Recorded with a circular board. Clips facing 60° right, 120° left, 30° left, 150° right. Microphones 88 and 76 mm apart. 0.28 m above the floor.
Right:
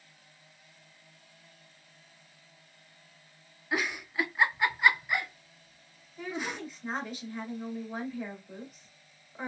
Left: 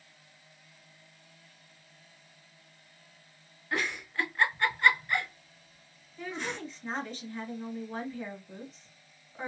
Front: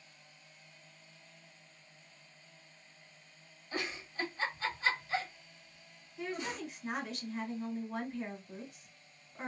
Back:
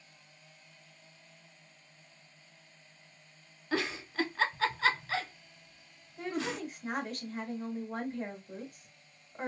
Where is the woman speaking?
140° right, 1.4 m.